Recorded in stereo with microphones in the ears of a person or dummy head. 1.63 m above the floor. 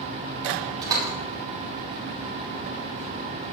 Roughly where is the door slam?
Right.